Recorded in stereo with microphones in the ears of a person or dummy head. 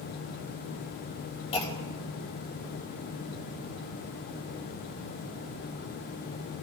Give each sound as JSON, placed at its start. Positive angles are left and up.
{"t": 1.5, "sound": "a clunk", "side_deg": 30, "distance_m": 5.0}